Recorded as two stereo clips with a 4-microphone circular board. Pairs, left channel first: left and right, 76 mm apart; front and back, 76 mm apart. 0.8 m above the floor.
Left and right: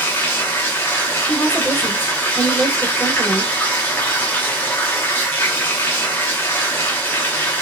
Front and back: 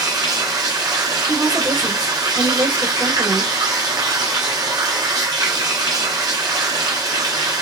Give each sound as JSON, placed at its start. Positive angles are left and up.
{"t": 0.0, "sound": "running water", "azimuth_deg": 155, "distance_m": 0.7}
{"t": 1.3, "sound": "a woman speaking", "azimuth_deg": 165, "distance_m": 1.2}